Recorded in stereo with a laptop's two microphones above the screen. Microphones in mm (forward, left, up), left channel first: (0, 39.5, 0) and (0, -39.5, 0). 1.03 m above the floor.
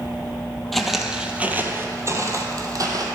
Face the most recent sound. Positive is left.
turn(degrees=-50)  # may be behind; listen again after turning